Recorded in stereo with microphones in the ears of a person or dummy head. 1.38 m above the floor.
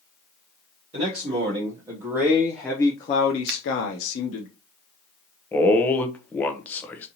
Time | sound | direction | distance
0.9 | a man speaking | 30° right (ahead or behind) | 1.2 m
3.5 | a finger snap | 55° right (ahead or behind) | 0.8 m
5.5 | a man speaking | 10° left (ahead or behind) | 0.6 m